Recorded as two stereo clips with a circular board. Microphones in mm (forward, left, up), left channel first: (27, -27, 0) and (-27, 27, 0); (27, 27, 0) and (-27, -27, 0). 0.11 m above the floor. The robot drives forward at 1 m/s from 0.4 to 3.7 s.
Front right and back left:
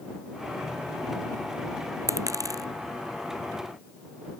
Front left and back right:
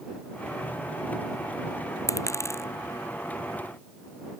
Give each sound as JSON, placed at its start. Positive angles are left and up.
{"t": 2.1, "sound": "a dropped coin", "azimuth_deg": 90}